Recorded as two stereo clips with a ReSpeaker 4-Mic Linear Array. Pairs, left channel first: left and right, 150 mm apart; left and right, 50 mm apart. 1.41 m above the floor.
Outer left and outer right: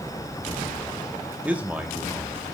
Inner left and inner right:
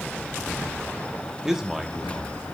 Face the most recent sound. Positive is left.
turn(degrees=-10)  # may be behind; listen again after turning